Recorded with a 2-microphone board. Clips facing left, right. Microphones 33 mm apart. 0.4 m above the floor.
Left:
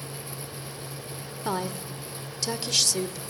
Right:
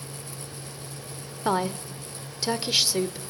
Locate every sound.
1.4 s a woman speaking: 20° right (ahead or behind), 1.0 m